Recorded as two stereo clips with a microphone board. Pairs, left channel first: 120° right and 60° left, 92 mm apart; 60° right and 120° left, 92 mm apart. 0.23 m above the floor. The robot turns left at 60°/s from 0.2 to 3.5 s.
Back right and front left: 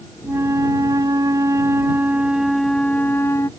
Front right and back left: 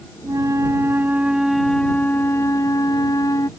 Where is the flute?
110° left; by 3.5 s 85° right.